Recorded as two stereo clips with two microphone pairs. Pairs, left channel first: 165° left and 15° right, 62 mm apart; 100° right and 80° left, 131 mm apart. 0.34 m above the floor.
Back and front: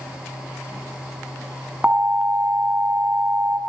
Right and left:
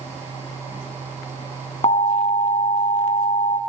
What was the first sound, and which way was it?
An alarm, 75° right.